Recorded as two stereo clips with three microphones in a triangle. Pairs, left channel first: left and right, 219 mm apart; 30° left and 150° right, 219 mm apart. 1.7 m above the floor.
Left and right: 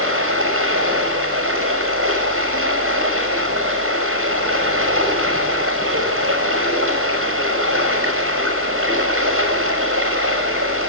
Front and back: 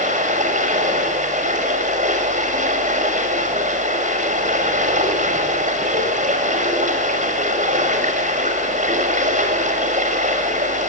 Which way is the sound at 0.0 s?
95° right.